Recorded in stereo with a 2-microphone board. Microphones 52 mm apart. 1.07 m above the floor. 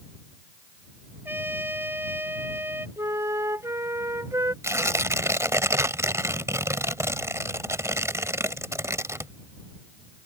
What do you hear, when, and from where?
1.2 s a trumpet: 40° right (ahead or behind)
3.0 s a flute: 70° right (ahead or behind)
4.6 s tearing paper: 65° right (ahead or behind)